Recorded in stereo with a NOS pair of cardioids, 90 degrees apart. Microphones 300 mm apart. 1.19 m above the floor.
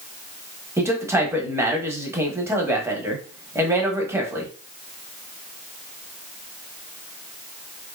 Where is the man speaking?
10° right, 1.0 m.